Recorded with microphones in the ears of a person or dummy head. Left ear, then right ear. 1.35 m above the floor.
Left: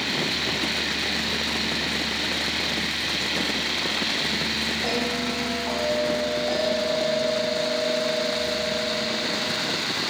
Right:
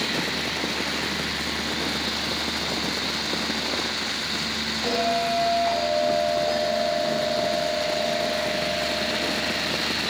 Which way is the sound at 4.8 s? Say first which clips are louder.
Right 3 dB; 15° left (ahead or behind).